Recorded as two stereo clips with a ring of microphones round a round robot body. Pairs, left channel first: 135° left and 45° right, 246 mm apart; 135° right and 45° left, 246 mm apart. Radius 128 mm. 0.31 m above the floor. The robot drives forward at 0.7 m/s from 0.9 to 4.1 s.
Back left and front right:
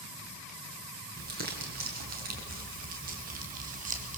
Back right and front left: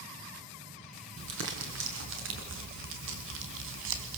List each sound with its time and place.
1.2 s crumpling: 5° left, 5 m; by 4.2 s 10° left, 3.5 m